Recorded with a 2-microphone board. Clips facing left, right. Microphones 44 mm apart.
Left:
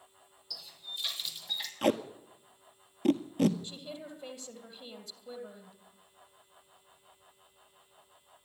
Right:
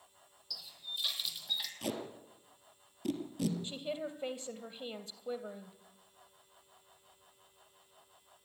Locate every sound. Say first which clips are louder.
0.5 s a running tap: even; centre (ahead or behind), 3 m
1.8 s tape being pulled: left 10 dB; 50° left (ahead or behind), 1.4 m
3.6 s a woman speaking: right 5 dB; 35° right (ahead or behind), 3 m